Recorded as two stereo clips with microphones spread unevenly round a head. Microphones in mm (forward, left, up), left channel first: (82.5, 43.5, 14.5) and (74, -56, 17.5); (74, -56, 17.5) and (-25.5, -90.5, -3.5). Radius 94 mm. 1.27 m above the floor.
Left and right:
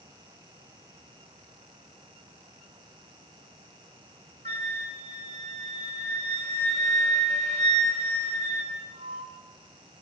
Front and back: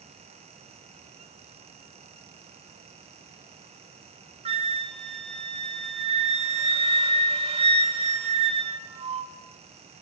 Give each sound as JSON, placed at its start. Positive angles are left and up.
{"t": 4.5, "sound": "a flute", "azimuth_deg": -130, "distance_m": 2.5}